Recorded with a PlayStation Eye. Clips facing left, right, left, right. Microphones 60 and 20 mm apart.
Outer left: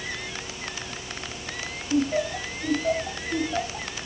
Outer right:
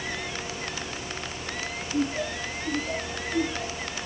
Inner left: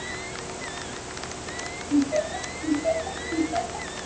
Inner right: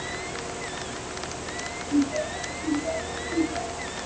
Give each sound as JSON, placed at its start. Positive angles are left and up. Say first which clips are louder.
{"t": 1.9, "sound": "laughter", "louder": "outer left 4 dB, inner left 2 dB", "side_deg": 90, "distance_m": 6.0}